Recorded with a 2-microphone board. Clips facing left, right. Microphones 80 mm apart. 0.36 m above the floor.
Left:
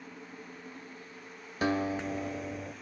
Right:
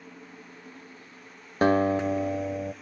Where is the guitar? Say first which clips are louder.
Right 8 dB; 45° right (ahead or behind), 0.6 m.